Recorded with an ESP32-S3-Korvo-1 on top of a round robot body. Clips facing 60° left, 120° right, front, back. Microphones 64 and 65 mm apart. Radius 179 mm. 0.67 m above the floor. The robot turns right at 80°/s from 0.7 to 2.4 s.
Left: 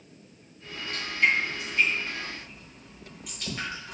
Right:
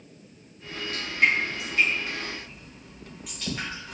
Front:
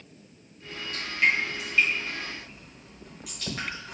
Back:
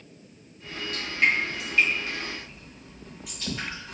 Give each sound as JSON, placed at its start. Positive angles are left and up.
{"t": 0.6, "sound": "dripping", "azimuth_deg": -160, "distance_m": 1.6}